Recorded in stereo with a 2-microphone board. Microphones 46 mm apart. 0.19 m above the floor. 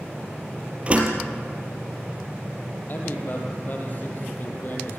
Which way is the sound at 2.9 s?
40° left (ahead or behind).